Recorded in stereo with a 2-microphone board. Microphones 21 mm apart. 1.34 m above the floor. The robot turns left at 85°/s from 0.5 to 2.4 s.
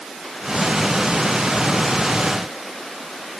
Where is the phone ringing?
I don't hear a phone ringing.